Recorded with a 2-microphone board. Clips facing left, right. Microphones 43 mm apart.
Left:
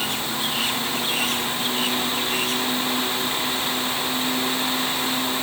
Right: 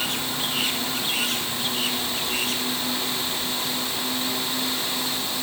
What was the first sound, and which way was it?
Only background noise.